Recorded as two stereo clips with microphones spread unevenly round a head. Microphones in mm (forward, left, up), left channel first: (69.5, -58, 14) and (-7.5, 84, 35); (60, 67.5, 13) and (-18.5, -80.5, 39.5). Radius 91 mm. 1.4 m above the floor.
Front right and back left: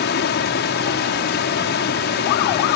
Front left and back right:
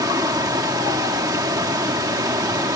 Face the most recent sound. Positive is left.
turn(degrees=-50)